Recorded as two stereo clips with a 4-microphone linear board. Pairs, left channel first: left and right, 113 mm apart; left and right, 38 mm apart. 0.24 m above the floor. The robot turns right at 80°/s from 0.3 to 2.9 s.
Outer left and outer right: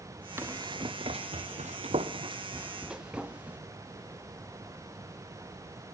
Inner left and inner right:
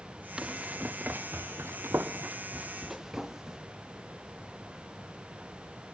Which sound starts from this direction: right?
Running footsteps, at 0.4 s.